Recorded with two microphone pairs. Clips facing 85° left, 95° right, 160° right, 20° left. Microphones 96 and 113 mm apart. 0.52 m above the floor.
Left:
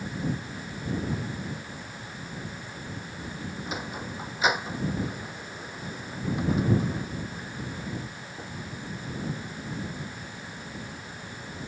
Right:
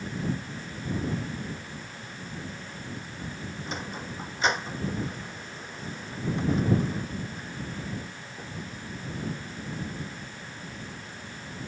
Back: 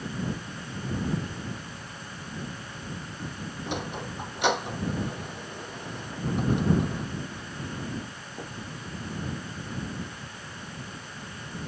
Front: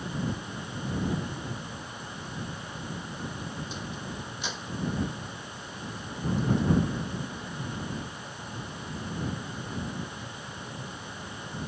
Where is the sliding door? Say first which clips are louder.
Even, back 4 dB; 170° left.